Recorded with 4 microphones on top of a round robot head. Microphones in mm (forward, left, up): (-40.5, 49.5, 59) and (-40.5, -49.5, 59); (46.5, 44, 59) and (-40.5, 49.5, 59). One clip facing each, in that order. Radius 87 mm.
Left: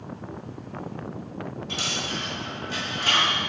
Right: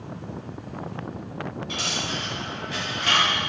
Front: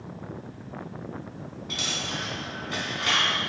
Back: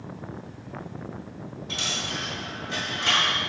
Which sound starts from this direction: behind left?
A dropped coin, at 1.7 s.